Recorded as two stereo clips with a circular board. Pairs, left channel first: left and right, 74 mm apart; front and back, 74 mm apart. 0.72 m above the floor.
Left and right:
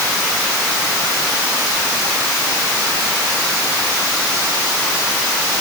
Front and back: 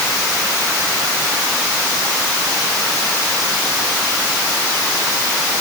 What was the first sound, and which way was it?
Only background noise.